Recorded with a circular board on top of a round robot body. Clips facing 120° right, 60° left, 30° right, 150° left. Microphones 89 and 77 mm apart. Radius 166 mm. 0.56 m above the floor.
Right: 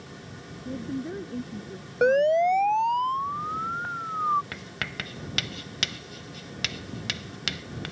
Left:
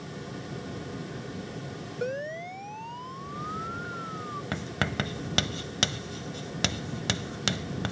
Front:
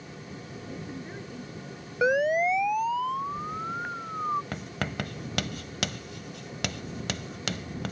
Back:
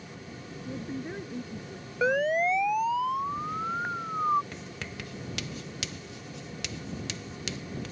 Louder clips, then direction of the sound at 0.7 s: Right 5 dB, back 5 dB; 140° right.